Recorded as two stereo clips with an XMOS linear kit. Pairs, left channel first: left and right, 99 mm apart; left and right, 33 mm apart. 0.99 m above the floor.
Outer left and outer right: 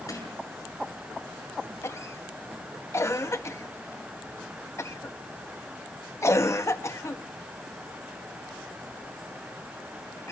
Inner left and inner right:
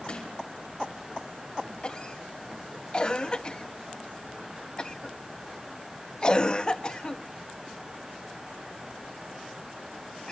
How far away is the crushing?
About 8 m.